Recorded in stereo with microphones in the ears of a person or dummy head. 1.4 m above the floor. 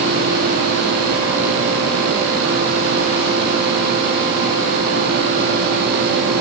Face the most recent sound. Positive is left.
No sound to turn to.